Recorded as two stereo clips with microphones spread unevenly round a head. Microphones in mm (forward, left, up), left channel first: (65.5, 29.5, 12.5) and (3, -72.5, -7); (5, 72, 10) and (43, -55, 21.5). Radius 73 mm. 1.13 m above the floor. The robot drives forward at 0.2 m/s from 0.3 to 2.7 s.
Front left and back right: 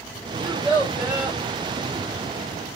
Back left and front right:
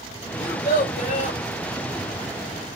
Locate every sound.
0.4 s a child speaking: 150° left, 1.4 m; by 1.4 s 155° left, 1.6 m